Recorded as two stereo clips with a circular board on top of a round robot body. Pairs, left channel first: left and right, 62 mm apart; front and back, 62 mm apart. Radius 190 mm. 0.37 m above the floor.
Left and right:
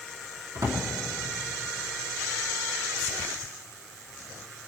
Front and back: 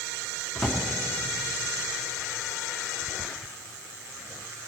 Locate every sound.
0.6 s a drawer: 85° right, 3 m